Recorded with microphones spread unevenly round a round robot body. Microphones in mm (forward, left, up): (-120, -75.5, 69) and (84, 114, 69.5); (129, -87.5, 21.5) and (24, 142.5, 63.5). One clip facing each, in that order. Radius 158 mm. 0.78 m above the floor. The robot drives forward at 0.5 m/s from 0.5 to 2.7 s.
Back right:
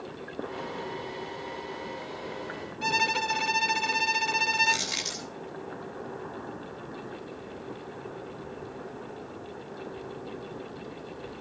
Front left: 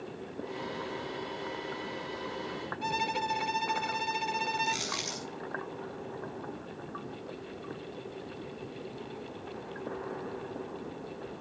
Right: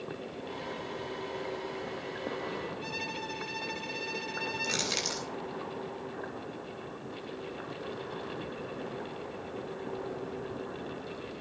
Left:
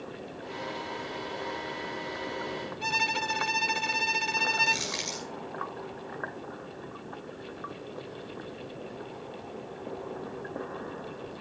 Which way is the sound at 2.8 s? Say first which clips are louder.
Back right 5 dB, left 2 dB; 155° left.